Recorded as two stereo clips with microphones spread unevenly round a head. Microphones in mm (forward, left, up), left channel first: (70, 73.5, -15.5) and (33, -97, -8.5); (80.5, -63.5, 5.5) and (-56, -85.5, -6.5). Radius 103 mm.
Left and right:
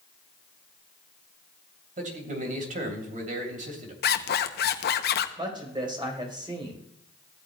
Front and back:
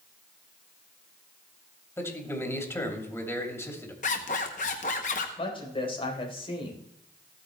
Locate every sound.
2.0 s a man speaking: 65° right, 2.5 m
4.0 s a zipper: 60° left, 0.7 m
5.4 s a woman speaking: 40° right, 4 m